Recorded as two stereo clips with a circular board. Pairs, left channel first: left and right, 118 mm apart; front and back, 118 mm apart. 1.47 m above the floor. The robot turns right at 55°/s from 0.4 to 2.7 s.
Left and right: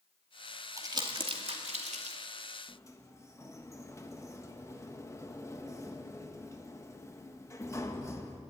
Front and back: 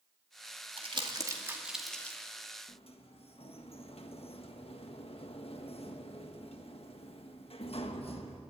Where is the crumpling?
150° right, 2.5 m; by 2.2 s 70° right, 2.5 m.